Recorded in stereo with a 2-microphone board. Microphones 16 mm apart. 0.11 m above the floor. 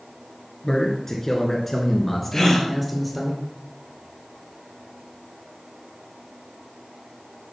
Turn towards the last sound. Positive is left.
turn(degrees=35)  # may be behind; listen again after turning